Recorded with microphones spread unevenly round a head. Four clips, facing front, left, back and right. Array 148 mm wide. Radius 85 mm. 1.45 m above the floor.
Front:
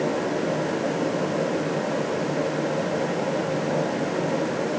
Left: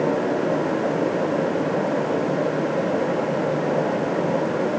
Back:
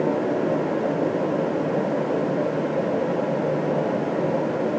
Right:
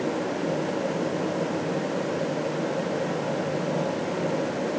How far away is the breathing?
No breathing in this recording.